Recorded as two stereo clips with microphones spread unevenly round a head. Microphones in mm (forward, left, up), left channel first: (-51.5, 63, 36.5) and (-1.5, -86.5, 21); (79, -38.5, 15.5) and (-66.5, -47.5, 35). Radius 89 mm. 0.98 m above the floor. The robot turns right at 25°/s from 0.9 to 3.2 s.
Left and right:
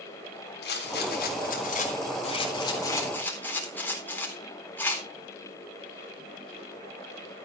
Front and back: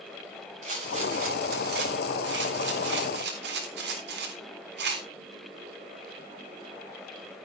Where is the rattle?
130° left, 4 m; by 5.1 s 170° right, 4 m.